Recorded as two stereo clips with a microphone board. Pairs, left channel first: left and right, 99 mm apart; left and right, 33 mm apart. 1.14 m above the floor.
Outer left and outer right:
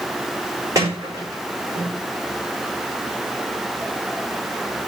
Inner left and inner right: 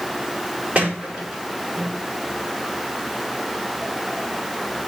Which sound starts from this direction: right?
A sliding door, at 0.8 s.